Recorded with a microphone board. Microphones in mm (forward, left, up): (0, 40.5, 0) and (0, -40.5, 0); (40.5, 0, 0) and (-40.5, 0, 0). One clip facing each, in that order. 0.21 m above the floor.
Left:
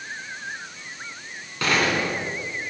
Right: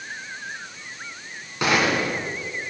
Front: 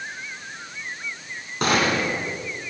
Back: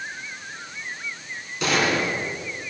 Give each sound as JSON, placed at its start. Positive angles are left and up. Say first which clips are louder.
{"t": 1.6, "sound": "a gunshot", "louder": "right 1 dB, front 1 dB", "azimuth_deg": -20, "distance_m": 2.0}